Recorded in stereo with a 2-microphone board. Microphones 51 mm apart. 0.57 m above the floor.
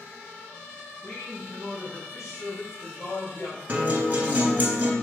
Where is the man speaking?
60° left (ahead or behind), 3.5 m; by 3.6 s 70° left (ahead or behind), 2 m.